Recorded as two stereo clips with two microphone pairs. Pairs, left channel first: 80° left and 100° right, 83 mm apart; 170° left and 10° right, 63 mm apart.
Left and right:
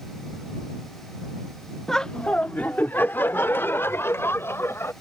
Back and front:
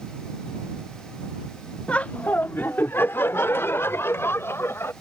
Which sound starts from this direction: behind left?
Laughter, at 1.9 s.